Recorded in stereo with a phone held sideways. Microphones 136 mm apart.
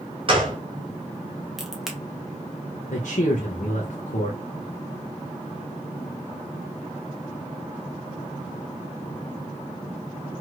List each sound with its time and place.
0.3 s a gunshot: 40° right (ahead or behind), 1.0 m
1.6 s a crack: 5° right (ahead or behind), 0.8 m
2.9 s a man speaking: 70° left (ahead or behind), 0.6 m